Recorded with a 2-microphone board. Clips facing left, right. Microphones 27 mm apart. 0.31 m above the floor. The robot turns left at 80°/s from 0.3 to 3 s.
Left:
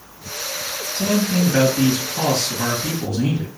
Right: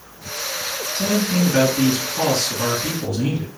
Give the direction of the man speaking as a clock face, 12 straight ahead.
6 o'clock.